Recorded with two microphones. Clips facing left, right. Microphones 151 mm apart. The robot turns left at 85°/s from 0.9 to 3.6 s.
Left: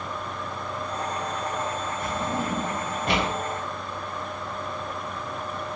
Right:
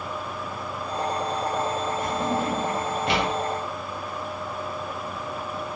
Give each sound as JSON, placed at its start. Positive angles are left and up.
{"t": 2.0, "sound": "a drawer", "side_deg": 25, "distance_m": 1.8}